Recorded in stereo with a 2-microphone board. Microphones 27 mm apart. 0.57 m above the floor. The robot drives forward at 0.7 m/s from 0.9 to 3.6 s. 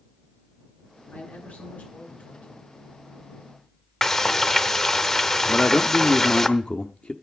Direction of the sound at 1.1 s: 80° left.